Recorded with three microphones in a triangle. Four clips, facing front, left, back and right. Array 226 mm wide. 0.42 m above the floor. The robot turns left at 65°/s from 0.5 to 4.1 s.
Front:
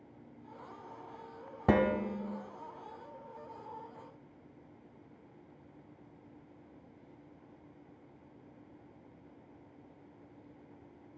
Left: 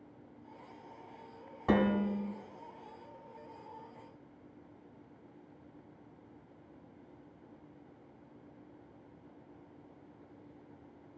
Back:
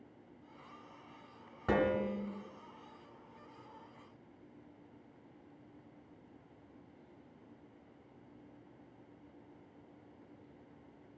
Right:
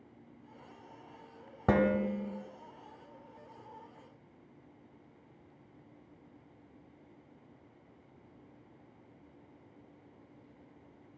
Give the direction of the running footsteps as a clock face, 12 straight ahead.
No running footsteps in this recording.